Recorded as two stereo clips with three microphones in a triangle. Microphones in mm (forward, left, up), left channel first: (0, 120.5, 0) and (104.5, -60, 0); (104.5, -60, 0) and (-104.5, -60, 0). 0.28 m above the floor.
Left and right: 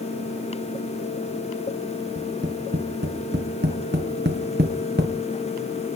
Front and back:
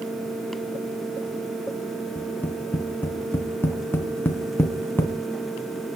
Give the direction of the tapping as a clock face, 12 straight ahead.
3 o'clock.